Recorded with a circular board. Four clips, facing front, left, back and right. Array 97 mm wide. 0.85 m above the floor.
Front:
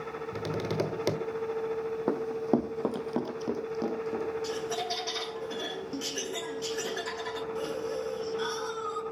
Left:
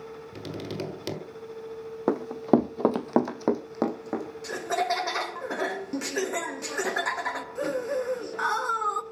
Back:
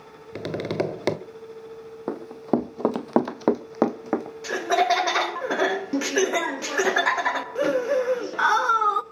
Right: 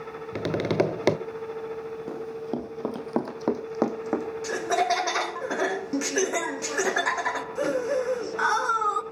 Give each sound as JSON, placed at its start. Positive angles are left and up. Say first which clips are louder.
{"t": 0.3, "sound": "tapping", "louder": "right 11 dB, back 5 dB", "azimuth_deg": -115, "distance_m": 1.2}
{"t": 2.1, "sound": "running footsteps", "louder": "left 12 dB, back 3 dB", "azimuth_deg": 90, "distance_m": 1.9}
{"t": 4.4, "sound": "laughter", "louder": "right 3 dB, back 11 dB", "azimuth_deg": -170, "distance_m": 0.7}